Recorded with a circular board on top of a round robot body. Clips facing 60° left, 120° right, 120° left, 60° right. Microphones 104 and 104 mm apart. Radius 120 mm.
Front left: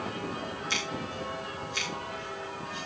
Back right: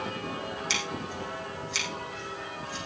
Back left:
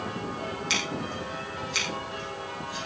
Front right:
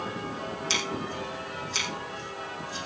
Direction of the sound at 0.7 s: 120° right.